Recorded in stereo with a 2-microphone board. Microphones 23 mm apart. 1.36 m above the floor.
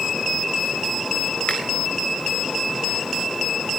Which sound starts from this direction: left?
A finger snap, at 1.5 s.